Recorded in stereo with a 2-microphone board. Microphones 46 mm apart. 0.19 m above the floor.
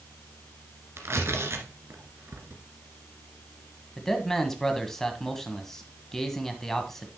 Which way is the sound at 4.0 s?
10° left (ahead or behind).